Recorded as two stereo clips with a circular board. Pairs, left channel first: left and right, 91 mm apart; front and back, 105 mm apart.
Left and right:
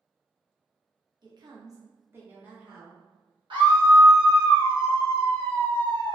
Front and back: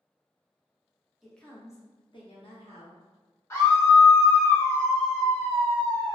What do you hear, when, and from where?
1.2 s a woman speaking: 95° right, 0.6 m; by 3.0 s 10° right, 1.2 m
3.5 s a scream: 65° right, 1.0 m